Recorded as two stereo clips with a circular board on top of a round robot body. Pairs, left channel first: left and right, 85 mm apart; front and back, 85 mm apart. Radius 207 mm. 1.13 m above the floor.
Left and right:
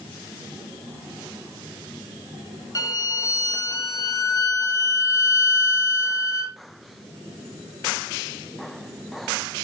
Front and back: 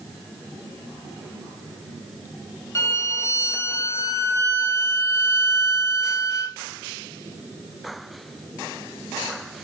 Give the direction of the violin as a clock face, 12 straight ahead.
10 o'clock.